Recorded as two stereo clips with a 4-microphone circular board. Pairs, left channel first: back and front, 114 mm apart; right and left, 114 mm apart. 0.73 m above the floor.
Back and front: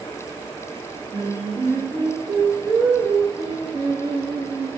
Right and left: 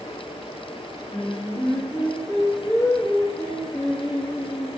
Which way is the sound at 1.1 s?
25° right.